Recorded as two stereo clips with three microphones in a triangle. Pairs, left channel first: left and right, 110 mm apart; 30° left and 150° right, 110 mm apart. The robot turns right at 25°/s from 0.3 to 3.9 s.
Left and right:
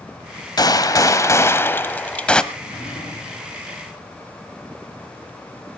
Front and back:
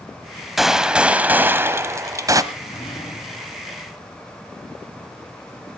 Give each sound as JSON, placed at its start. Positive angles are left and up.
{"t": 0.6, "sound": "a gunshot", "azimuth_deg": 120, "distance_m": 0.9}
{"t": 2.5, "sound": "a drawer", "azimuth_deg": 55, "distance_m": 6.0}